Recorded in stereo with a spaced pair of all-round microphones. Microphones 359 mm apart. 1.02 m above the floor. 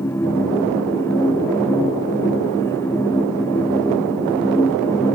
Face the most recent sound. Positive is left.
turn(degrees=5)  # may be behind; listen again after turning